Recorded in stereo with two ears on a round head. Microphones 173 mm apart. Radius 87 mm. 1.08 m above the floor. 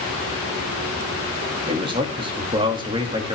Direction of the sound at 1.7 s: 25° right (ahead or behind).